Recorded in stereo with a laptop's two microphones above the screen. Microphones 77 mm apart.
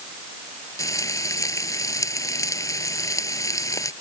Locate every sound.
0.8 s frying: 45° left (ahead or behind)